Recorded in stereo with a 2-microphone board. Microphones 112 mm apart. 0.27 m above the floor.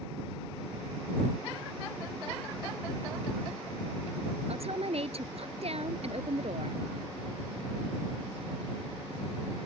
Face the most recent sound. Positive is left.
turn(degrees=-65)  # may be behind; listen again after turning